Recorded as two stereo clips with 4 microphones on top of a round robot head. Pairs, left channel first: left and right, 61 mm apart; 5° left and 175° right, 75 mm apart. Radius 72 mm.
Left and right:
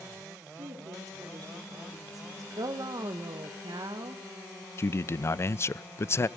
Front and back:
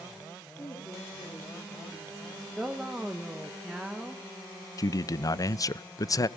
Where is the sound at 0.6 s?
60° right, 10 m.